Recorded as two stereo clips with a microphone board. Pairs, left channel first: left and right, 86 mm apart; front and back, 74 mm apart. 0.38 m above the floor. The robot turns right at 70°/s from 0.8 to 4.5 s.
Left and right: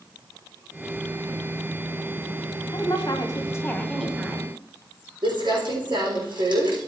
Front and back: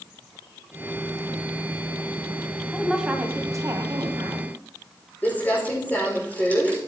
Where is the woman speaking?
85° left, 2.0 m; by 4.5 s 150° right, 2.0 m.